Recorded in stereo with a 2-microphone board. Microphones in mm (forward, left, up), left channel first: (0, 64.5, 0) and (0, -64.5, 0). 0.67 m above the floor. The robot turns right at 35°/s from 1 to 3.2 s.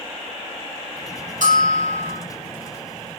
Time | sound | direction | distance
1.4 | a bell | 85° right | 8.5 m